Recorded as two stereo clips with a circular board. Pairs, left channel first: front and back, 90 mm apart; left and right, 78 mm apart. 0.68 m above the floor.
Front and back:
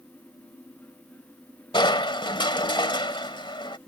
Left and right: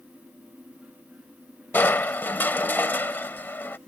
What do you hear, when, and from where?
1.7 s crushing: 25° left